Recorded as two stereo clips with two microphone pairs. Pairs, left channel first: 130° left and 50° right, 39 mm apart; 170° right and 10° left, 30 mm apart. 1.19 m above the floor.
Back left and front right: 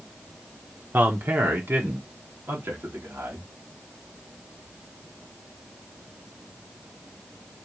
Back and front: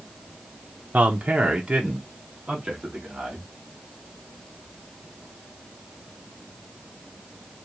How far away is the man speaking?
About 1.3 m.